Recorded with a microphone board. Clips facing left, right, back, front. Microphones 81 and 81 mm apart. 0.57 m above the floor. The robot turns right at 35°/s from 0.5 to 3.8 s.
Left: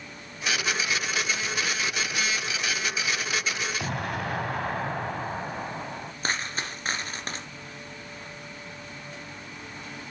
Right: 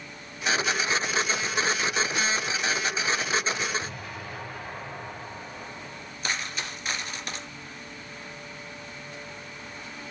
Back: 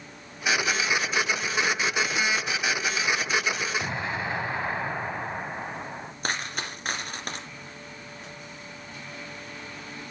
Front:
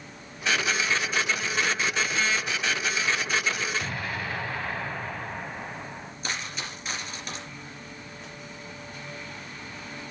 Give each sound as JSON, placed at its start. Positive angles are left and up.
{"t": 3.8, "sound": "an explosion", "azimuth_deg": 110, "distance_m": 1.3}
{"t": 6.2, "sound": "a dropped coin", "azimuth_deg": 140, "distance_m": 2.5}